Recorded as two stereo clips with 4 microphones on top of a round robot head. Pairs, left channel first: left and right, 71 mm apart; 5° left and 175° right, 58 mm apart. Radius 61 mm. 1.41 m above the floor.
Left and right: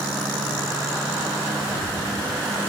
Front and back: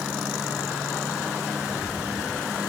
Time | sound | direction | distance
1.6 | a rattle | 85° right | ?